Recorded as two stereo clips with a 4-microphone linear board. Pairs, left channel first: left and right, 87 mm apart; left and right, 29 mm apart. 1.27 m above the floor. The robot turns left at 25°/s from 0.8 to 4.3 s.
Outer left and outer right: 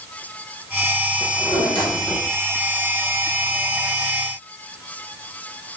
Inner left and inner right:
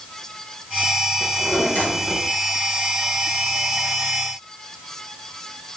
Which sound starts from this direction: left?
A drawer, at 1.2 s.